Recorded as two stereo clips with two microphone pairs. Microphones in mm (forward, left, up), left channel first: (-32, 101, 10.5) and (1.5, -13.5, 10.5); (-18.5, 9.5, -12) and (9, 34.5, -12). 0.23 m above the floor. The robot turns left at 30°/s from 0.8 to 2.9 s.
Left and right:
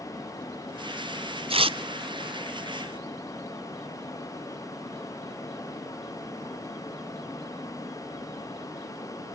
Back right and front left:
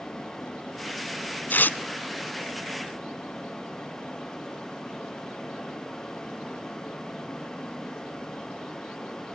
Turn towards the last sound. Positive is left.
turn(degrees=-150)